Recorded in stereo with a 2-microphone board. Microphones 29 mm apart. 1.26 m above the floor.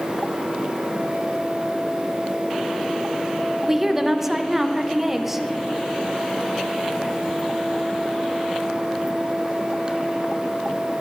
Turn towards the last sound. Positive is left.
turn(degrees=-10)  # may be behind; listen again after turning